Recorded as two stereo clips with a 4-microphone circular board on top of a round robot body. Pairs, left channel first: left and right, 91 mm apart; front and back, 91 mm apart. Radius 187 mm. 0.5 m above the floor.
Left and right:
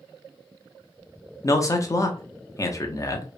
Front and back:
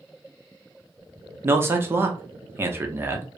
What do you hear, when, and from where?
1.4 s a man speaking: 130° left, 0.8 m